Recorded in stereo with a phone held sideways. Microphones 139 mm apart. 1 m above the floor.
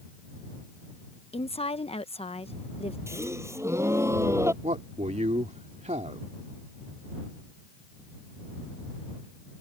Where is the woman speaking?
45° left (ahead or behind).